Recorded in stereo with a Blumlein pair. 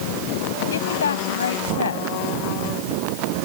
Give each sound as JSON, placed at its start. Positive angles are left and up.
{"t": 0.7, "sound": "a woman speaking", "azimuth_deg": 65}